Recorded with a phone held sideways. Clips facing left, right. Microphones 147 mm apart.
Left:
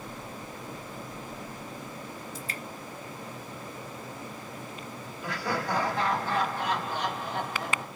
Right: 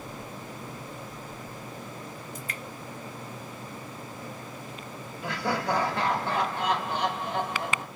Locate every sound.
2.4 s dripping: 30° left (ahead or behind), 0.7 m
5.2 s laughter: 65° right (ahead or behind), 1.7 m